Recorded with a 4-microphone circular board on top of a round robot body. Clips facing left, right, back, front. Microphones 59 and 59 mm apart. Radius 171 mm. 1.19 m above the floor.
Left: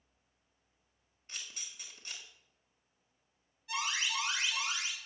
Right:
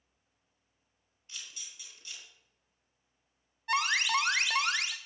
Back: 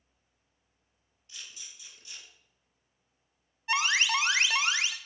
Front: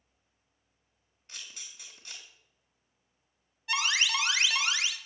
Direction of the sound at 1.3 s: 40° left.